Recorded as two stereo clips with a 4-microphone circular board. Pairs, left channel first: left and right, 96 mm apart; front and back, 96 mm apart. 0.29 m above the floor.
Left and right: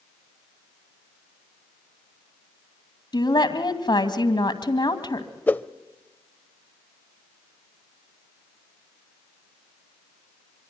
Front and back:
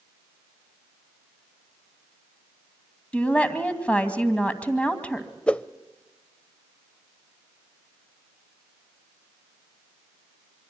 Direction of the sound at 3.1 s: 75° left.